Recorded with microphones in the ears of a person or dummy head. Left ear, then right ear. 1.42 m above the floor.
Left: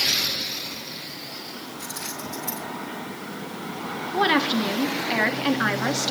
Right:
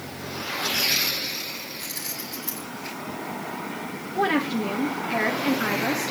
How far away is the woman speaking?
About 1.4 m.